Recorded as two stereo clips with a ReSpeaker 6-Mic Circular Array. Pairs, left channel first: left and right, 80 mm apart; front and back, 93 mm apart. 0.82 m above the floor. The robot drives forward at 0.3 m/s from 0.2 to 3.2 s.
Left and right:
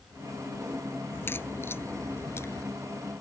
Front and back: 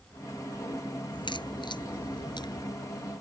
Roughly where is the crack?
Ahead left.